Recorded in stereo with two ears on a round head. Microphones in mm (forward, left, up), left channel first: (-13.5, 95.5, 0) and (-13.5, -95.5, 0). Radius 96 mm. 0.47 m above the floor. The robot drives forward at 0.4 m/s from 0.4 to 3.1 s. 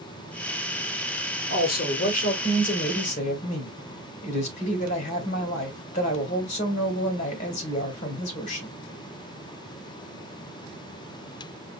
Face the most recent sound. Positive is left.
turn(degrees=35)  # may be behind; listen again after turning